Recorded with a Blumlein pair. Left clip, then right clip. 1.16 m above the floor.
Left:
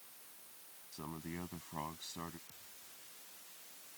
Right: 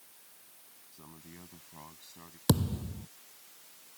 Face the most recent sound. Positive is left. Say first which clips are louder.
# right 24 dB
turn(degrees=-45)